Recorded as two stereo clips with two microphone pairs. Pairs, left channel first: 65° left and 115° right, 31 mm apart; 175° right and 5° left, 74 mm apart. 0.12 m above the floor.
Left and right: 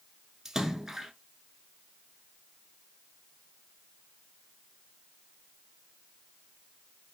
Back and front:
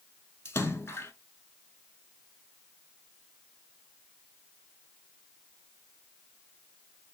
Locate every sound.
0.5 s a splash: 175° right, 0.6 m